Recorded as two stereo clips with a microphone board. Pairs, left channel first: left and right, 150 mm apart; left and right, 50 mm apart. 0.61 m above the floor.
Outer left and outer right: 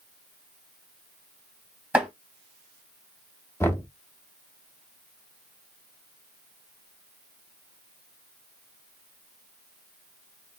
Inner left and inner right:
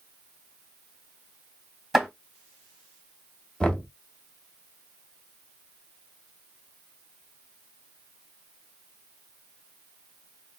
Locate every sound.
1.9 s chopping: 10° right (ahead or behind), 2.5 m
3.6 s knocking: 15° left (ahead or behind), 0.6 m